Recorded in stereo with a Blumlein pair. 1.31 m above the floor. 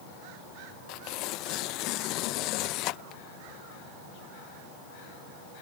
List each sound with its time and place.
0.9 s tearing paper: 40° left